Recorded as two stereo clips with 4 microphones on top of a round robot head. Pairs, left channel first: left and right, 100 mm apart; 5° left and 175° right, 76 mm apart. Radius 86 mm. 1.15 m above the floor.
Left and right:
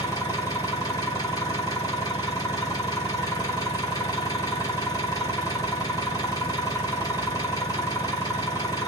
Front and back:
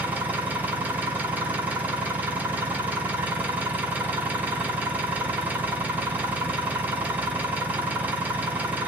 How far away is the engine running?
About 0.8 m.